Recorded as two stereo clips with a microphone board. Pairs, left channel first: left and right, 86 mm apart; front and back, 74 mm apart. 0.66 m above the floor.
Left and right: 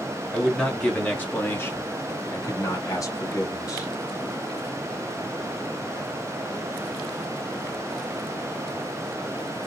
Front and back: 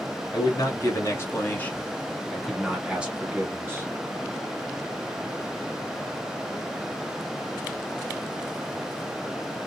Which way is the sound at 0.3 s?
10° left.